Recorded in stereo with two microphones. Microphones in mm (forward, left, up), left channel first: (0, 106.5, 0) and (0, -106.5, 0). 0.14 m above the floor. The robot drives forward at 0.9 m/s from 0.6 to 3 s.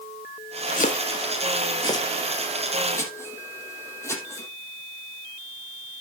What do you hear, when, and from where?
0.8 s chopping: 40° left (ahead or behind), 0.8 m; by 4.5 s 10° left (ahead or behind), 2.5 m